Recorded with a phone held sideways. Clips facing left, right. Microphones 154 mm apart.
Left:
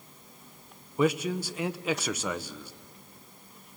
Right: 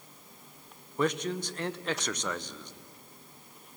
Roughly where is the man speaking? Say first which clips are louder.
Left 3 dB; centre.